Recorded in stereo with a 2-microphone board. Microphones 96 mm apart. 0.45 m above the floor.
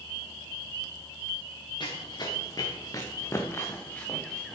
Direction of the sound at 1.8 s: 50° left (ahead or behind).